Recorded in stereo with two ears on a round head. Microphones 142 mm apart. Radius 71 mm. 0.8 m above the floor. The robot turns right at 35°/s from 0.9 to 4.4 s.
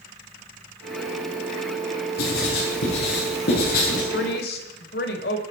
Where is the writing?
65° left (ahead or behind), 9 m; by 4.0 s 50° left (ahead or behind), 9 m.